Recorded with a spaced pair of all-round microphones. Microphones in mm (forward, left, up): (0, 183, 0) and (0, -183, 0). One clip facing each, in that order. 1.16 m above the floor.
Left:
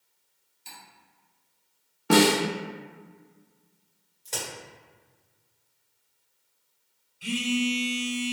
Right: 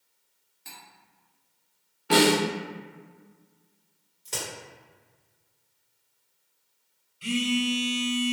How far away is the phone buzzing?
About 0.6 m.